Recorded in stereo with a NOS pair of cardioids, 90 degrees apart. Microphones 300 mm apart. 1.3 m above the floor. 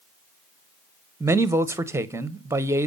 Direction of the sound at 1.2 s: 10° right.